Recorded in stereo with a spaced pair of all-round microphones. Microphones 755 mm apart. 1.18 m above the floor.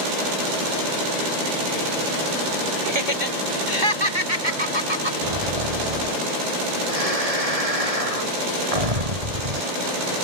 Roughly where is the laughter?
Right.